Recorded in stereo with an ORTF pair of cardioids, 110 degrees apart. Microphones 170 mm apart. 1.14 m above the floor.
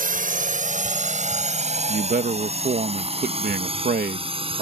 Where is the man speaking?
60° right.